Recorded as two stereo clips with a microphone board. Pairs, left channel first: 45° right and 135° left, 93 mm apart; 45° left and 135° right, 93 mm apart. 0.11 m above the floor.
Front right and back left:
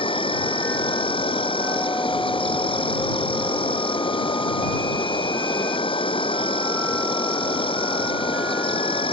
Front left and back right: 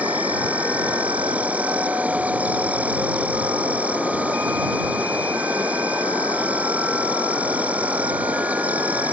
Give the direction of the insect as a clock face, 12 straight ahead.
2 o'clock.